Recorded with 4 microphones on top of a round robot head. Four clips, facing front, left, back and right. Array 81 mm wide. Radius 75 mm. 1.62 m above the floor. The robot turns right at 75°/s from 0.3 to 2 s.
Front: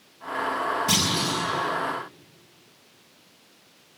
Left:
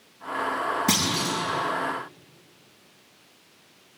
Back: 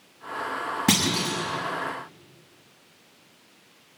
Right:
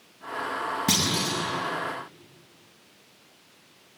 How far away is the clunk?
About 7 m.